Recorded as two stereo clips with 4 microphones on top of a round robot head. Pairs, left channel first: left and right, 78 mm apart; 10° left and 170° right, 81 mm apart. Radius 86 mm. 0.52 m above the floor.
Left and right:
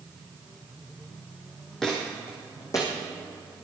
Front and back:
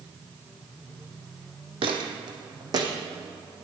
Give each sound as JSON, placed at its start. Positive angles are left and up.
{"t": 1.8, "sound": "footsteps", "azimuth_deg": 175, "distance_m": 1.6}